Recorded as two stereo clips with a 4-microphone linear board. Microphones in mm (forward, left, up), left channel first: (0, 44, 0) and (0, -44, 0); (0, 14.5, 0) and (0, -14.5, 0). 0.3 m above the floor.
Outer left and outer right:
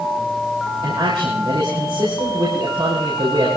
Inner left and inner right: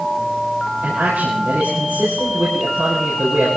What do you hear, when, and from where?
0.8 s a man speaking: 70° right (ahead or behind), 6 m